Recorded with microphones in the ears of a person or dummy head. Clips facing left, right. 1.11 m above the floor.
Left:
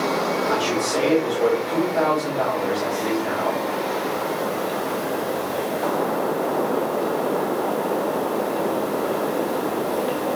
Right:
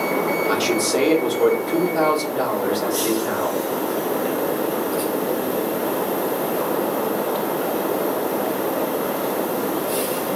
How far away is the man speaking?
About 1.0 m.